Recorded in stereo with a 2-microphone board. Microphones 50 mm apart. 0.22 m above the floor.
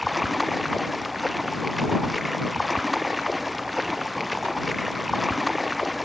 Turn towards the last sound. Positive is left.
turn(degrees=0)  # may be behind; listen again after turning